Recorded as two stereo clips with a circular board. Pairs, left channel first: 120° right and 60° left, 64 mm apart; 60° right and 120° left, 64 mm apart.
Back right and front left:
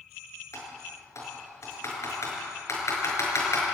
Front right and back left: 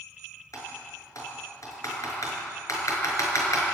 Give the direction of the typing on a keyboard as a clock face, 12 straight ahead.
3 o'clock.